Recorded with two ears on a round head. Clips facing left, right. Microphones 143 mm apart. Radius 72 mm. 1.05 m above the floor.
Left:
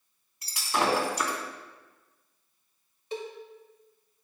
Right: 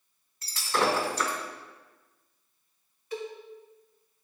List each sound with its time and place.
0.4 s breaking glass: 15° left (ahead or behind), 2.5 m
3.1 s a cowbell: 25° left (ahead or behind), 2.0 m